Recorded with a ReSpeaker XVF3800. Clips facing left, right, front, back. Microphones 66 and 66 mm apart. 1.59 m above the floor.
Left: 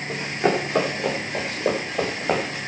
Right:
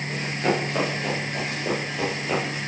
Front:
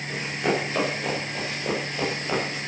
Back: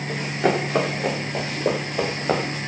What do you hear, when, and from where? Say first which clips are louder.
0.1 s running footsteps: left 3 dB, back 4 dB; 155° left, 8.5 m; by 2.6 s 135° left, 8 m